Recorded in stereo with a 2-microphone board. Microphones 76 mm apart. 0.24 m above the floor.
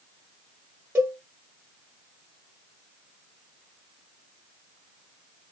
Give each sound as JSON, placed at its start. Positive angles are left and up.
{"t": 0.9, "sound": "a cowbell", "side_deg": -25, "distance_m": 2.0}